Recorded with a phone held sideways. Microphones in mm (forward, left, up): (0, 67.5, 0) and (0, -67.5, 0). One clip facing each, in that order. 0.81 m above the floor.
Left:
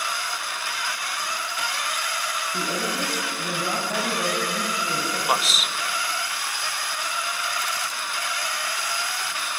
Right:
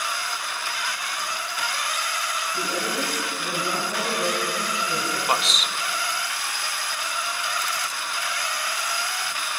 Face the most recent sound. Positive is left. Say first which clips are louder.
# left 1 dB
turn(degrees=5)  # may be behind; listen again after turning